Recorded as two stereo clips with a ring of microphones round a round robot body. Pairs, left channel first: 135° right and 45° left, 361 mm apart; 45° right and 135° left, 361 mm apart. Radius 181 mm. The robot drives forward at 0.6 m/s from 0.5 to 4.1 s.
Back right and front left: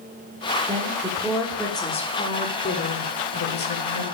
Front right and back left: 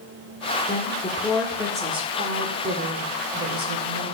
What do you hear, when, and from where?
0.7 s a woman speaking: 5° right, 1.0 m; by 4.0 s straight behind, 1.8 m